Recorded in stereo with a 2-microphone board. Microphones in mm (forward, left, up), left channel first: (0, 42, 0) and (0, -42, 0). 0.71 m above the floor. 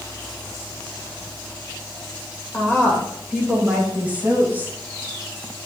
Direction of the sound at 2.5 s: 20° left (ahead or behind).